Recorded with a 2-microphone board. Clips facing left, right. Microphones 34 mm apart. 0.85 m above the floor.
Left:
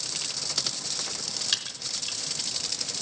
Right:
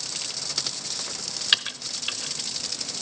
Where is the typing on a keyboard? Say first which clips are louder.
Right 9 dB; 40° right (ahead or behind), 0.7 m.